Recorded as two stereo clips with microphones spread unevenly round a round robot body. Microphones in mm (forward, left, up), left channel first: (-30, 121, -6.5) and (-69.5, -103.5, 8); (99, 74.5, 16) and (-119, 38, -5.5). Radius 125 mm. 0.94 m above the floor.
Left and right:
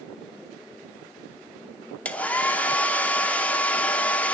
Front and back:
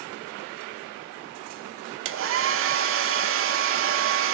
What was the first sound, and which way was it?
A hair dryer, 165° left.